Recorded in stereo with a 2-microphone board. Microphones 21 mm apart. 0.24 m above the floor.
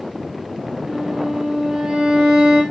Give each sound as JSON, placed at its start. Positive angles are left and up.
{"t": 0.9, "sound": "a violin", "side_deg": -50, "distance_m": 6.5}